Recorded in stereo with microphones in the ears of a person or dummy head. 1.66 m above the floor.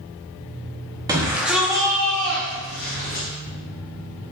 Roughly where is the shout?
Centre.